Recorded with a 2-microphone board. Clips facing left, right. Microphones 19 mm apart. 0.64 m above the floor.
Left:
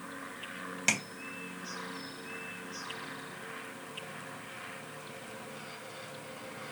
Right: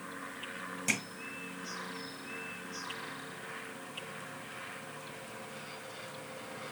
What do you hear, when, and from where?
0.9 s tapping: 40° left (ahead or behind), 2 m